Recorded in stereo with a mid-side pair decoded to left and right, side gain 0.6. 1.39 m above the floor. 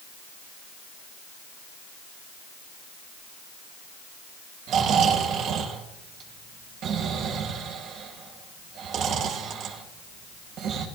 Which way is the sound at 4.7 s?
60° right.